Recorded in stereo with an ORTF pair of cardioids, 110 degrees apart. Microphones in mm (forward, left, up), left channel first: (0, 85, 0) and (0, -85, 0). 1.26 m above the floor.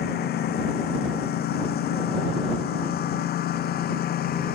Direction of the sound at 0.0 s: 65° left.